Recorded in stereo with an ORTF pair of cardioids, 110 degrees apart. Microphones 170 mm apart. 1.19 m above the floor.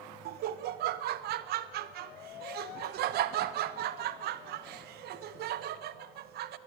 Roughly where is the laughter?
Right.